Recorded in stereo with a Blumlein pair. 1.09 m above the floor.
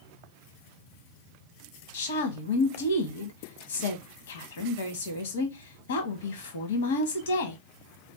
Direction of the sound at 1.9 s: 60° left.